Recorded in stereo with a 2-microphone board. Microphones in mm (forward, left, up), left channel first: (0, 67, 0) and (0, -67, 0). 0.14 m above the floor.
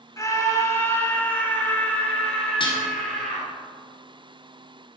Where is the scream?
25° left (ahead or behind), 1.2 m; by 3.5 s 5° left (ahead or behind), 2.5 m.